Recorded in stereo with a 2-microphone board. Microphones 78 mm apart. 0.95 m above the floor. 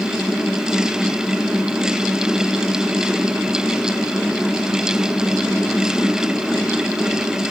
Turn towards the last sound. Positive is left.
No sound to turn to.